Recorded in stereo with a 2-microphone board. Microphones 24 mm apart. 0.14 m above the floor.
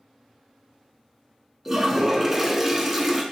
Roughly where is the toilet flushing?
Centre.